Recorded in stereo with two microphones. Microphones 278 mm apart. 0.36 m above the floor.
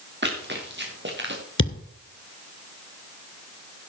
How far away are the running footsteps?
About 4 m.